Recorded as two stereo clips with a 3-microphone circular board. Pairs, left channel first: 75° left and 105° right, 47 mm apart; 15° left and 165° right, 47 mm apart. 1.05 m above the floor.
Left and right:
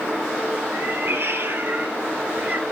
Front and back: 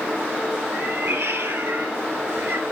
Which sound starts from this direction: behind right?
A cat meowing, at 0.7 s.